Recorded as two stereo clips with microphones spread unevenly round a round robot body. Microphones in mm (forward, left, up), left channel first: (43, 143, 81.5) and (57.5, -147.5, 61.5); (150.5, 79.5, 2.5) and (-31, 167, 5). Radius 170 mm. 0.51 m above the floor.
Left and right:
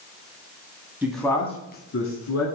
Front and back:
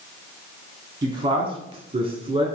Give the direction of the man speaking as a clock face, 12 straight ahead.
5 o'clock.